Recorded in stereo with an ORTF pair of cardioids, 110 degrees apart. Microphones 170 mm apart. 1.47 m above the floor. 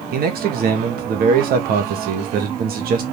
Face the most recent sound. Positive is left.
turn(degrees=-65)